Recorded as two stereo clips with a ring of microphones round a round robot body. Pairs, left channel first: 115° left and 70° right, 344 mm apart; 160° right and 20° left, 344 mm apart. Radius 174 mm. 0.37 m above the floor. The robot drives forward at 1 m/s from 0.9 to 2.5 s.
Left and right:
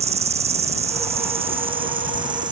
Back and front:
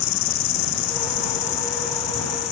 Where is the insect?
140° right; by 2.5 s 145° right.